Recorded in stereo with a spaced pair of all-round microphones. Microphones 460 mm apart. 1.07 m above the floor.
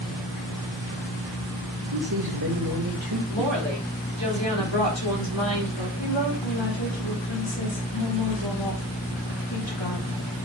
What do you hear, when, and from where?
1.9 s a man speaking: 55° right (ahead or behind), 3.5 m
3.3 s a woman speaking: 75° right (ahead or behind), 3 m
6.0 s a woman speaking: 80° left, 3.5 m